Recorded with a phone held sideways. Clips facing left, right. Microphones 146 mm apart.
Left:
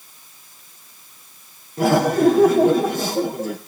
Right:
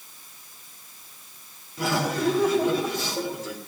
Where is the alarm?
I don't hear an alarm.